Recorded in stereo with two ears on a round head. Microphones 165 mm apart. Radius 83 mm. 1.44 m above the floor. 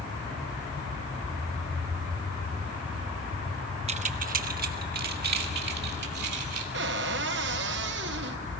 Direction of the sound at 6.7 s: 65° right (ahead or behind).